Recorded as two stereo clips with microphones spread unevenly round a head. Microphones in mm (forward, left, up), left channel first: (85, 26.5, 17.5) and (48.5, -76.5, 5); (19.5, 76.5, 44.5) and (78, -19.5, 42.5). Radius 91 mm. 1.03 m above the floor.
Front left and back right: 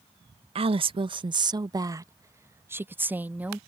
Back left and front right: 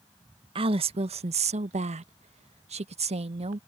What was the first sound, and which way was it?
A woman speaking, 95° right.